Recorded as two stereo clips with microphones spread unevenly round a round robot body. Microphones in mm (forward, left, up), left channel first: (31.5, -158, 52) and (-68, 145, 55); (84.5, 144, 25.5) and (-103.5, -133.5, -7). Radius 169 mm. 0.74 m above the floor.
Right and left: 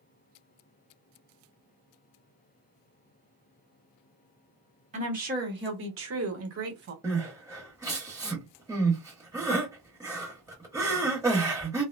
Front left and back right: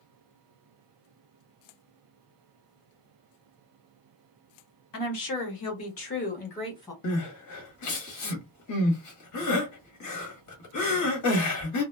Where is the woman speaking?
45° left, 1.4 m; by 6.9 s 140° left, 1.3 m.